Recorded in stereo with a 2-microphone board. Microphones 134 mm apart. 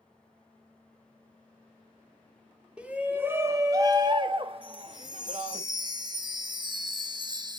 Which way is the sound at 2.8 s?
10° right (ahead or behind).